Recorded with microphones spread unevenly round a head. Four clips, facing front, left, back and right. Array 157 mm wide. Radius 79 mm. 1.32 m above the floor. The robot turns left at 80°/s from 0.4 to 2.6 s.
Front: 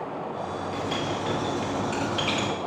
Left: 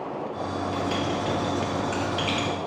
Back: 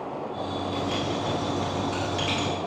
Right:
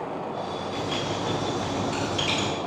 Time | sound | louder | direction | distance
0.7 | writing | left 2 dB, back 1 dB | 140° left | 1.9 m